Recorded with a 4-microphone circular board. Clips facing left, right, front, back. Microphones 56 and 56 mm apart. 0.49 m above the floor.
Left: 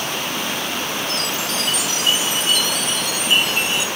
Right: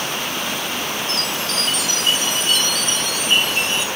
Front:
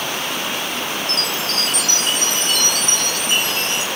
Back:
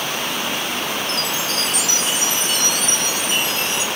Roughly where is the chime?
Ahead.